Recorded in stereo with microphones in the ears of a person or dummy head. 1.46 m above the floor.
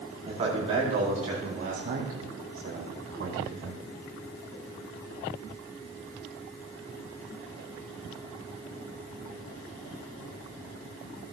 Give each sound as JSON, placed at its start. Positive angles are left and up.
{"t": 0.2, "sound": "a man speaking", "side_deg": -30, "distance_m": 4.5}